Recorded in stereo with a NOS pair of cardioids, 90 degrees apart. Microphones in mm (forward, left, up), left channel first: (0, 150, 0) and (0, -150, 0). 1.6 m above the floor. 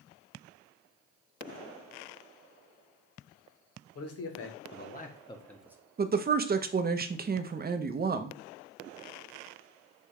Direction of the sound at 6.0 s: 30° right.